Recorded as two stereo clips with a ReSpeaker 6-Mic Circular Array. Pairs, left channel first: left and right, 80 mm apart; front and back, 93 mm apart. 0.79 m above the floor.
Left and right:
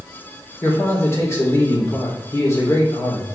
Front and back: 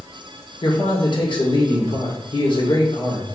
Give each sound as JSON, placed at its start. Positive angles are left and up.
{"t": 0.6, "sound": "a man speaking", "azimuth_deg": 30, "distance_m": 2.5}